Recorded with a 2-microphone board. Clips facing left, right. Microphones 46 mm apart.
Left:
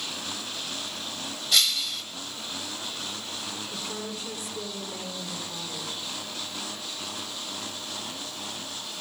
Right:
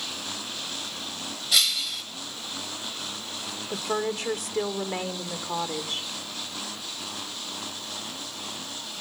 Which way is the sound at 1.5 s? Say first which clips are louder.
Even; 5° right (ahead or behind).